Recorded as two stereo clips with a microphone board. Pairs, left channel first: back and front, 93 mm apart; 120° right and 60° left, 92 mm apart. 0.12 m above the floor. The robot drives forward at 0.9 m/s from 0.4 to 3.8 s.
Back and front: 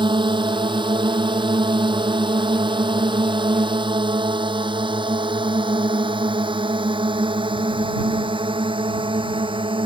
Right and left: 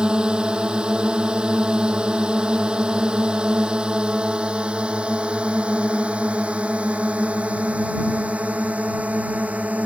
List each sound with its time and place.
0.0 s a drone: 20° right; by 9.9 s 15° right